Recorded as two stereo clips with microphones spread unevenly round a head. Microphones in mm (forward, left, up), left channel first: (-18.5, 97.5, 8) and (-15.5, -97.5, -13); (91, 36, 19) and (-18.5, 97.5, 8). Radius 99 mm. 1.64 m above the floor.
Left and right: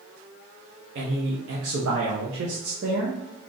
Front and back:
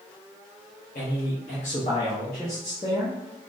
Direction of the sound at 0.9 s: 55° right.